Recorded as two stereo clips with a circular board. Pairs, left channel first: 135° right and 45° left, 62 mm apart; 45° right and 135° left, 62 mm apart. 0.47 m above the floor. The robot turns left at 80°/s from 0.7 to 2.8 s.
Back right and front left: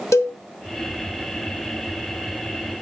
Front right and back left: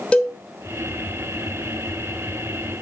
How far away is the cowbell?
About 0.9 m.